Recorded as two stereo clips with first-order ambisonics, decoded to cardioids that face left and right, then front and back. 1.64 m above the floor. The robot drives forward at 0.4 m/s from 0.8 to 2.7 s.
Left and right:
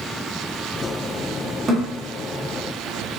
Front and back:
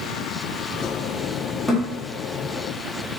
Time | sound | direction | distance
1.7 | a thud | 95° right | 1.0 m